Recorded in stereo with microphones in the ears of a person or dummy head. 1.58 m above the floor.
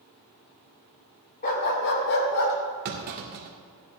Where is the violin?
No violin in this recording.